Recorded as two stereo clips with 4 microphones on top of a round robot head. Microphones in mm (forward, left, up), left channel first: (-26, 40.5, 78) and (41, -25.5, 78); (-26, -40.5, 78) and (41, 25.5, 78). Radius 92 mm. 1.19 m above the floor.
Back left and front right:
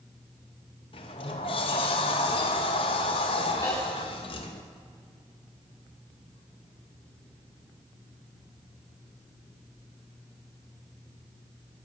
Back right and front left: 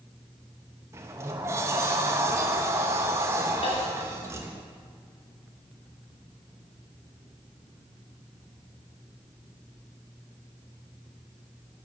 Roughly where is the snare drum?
Behind.